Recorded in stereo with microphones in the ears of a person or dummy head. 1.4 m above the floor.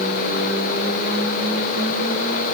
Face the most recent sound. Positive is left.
No sound to turn to.